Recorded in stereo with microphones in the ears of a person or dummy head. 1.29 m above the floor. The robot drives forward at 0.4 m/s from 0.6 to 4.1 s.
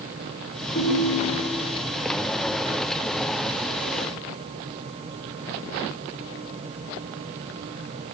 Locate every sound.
0.8 s a ringtone: 80° left, 2 m